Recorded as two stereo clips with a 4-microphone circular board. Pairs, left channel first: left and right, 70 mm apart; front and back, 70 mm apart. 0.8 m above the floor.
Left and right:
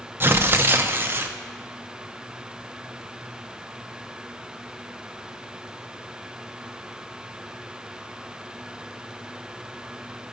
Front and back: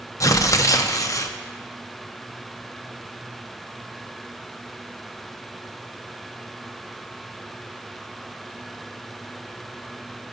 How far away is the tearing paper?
About 0.5 m.